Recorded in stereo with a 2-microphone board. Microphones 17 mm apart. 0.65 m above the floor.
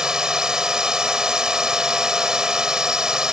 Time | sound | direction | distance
0.0 | a drone | 45° right (ahead or behind) | ?